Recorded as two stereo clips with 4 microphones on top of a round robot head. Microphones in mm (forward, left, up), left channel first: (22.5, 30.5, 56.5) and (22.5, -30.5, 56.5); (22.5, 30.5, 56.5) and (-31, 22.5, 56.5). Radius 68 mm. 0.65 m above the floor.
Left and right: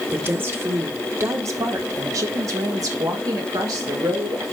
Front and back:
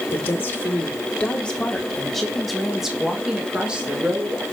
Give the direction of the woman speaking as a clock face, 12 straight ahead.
1 o'clock.